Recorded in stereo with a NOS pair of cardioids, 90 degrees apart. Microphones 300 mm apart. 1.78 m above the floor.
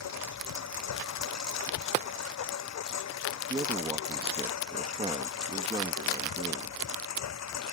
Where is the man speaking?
20° right.